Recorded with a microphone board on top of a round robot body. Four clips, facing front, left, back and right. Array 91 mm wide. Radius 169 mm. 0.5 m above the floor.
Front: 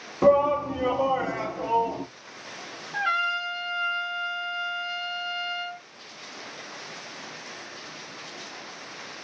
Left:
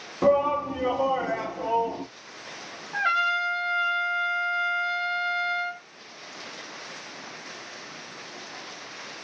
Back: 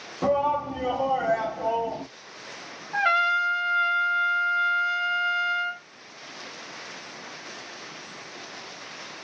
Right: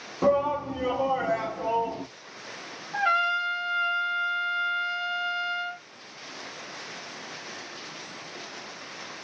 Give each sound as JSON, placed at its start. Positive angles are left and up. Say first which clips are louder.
{"t": 0.2, "sound": "a shout", "louder": "left 2 dB, front 4 dB", "azimuth_deg": 25, "distance_m": 1.3}
{"t": 2.9, "sound": "a trumpet", "louder": "even, back 4 dB", "azimuth_deg": 155, "distance_m": 1.1}